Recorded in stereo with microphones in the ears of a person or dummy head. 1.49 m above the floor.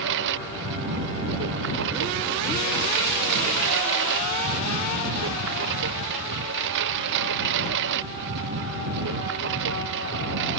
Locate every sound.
0.0 s a lawn mower: 75° right (ahead or behind)